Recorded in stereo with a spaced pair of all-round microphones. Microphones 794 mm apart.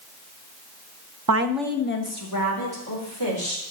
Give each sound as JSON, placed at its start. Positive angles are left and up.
{"t": 1.3, "sound": "a woman speaking", "side_deg": -30, "distance_m": 0.7}